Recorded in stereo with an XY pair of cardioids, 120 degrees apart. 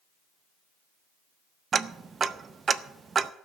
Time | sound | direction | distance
1.7 | ticking | 35° right | 0.6 m